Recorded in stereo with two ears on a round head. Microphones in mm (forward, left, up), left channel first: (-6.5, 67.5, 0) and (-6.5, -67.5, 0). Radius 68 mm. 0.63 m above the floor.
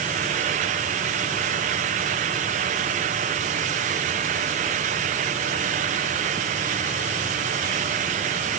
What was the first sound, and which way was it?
Only background noise.